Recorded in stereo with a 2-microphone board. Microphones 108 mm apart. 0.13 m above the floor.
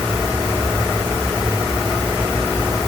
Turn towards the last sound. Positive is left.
No sound to turn to.